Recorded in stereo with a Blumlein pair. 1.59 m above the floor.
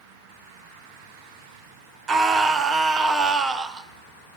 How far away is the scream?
About 0.9 m.